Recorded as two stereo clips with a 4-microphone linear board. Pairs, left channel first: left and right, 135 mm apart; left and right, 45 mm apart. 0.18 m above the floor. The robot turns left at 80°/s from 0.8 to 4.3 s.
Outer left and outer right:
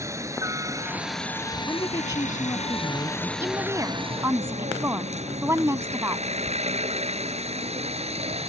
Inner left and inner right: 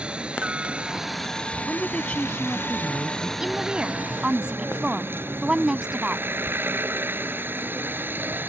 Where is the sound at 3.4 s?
15° right (ahead or behind); by 6.2 s 20° right (ahead or behind).